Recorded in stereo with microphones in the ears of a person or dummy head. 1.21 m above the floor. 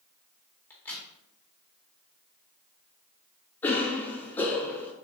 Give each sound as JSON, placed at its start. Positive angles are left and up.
{"t": 0.7, "sound": "a crack", "side_deg": 10, "distance_m": 1.0}
{"t": 3.6, "sound": "a cough", "side_deg": 10, "distance_m": 1.3}